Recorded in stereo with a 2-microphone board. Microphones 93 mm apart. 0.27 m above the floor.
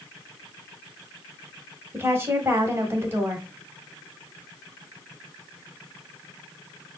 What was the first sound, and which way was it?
A woman speaking, 25° right (ahead or behind).